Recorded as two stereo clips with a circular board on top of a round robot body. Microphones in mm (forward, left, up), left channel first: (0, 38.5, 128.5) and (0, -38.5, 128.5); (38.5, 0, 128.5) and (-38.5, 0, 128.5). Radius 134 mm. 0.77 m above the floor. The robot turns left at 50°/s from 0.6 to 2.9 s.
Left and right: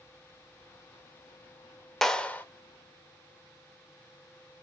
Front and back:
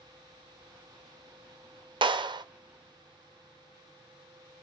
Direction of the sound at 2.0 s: 175° left.